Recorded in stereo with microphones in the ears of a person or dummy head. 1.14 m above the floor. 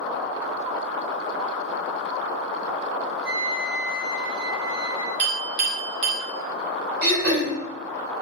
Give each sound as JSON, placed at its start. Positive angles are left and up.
{"t": 3.2, "sound": "a flute", "side_deg": -50, "distance_m": 1.0}
{"t": 5.2, "sound": "a clink", "side_deg": -65, "distance_m": 0.8}
{"t": 7.0, "sound": "throat clearing", "side_deg": -70, "distance_m": 1.6}